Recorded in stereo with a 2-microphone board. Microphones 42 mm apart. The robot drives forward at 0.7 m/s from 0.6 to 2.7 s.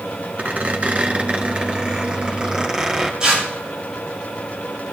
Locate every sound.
0.4 s a squeak: 45° right (ahead or behind), 1.2 m; by 3.1 s 20° right (ahead or behind), 2.5 m
3.2 s tearing paper: 20° right (ahead or behind), 7.5 m